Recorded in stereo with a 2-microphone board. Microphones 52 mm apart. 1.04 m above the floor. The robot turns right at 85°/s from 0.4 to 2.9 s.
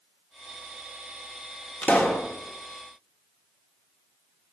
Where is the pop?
150° left, 1.2 m; by 2.3 s 170° right, 1.2 m.